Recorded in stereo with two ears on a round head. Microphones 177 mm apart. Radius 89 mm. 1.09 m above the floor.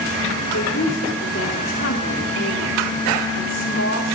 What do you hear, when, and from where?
0.5 s a woman speaking: 70° left (ahead or behind), 2.5 m